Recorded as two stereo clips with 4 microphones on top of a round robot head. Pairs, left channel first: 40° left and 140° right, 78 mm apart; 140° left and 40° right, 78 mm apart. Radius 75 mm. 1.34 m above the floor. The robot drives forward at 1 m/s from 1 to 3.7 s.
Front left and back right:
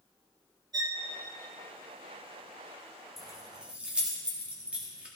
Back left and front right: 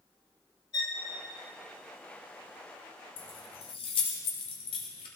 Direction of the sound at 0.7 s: Straight behind.